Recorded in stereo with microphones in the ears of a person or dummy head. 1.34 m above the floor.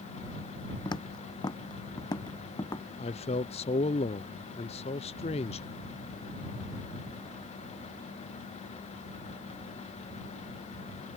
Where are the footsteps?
25° left (ahead or behind); by 2.9 s 20° left (ahead or behind).